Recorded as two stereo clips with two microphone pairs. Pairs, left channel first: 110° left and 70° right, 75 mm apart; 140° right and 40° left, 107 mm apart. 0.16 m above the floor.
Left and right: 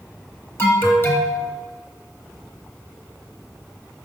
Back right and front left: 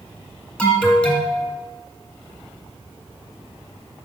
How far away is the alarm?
About 1.7 m.